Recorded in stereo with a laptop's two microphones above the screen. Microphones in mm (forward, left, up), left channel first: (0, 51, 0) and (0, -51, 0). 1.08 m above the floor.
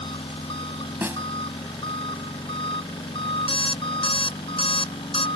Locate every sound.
0.0 s an engine running: 60° left (ahead or behind)
1.0 s a snare drum: 20° right (ahead or behind)
3.5 s an alarm clock: 60° left (ahead or behind)